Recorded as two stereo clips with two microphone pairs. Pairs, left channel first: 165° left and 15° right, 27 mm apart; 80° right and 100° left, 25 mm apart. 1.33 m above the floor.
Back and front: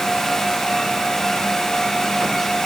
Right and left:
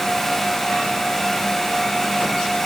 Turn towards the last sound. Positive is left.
No sound to turn to.